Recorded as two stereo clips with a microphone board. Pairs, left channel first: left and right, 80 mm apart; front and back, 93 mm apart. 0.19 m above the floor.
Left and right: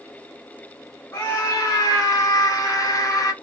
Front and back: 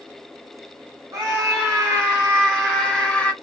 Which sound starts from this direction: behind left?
A scream, at 1.1 s.